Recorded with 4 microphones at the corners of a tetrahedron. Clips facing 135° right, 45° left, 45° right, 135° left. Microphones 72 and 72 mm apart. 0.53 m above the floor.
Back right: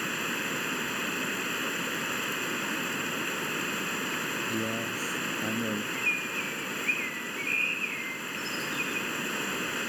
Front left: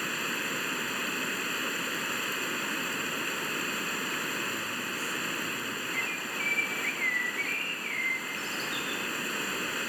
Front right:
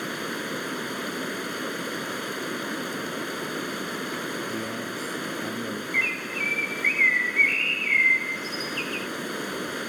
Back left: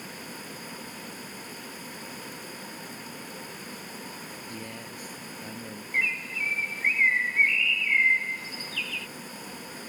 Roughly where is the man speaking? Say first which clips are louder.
Back right 3 dB, front right 9 dB; right.